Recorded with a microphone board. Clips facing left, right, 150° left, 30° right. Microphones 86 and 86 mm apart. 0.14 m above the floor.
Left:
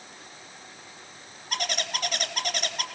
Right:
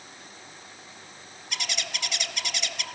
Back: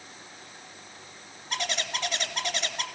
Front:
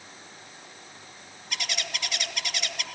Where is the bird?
110° left, 2.0 m.